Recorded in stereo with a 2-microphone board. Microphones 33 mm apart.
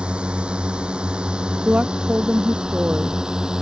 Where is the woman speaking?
45° right (ahead or behind).